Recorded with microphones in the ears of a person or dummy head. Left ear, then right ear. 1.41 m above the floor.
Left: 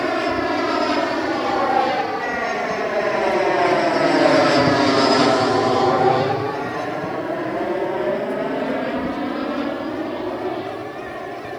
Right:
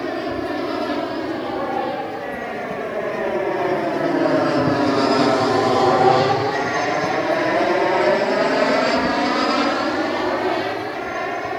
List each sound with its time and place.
0.0 s an aircraft: 70° left (ahead or behind); by 11.6 s 70° right (ahead or behind)